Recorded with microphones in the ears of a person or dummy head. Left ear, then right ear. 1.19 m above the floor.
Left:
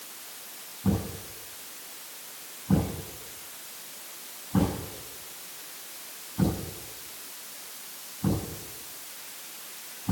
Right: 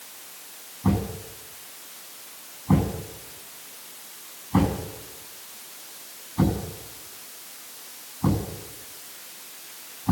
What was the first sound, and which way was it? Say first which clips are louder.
A thud: right 4 dB; 80° right.